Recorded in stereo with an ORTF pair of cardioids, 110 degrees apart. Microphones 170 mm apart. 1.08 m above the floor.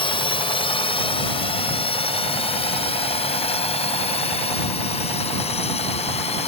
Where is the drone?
30° left; by 6.5 s 40° left.